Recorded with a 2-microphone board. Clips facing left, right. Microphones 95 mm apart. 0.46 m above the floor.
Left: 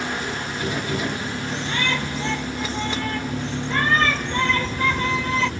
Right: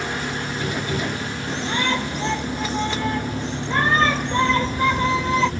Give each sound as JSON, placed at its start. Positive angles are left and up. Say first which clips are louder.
{"t": 1.5, "sound": "a shout", "louder": "right 3 dB", "side_deg": -20}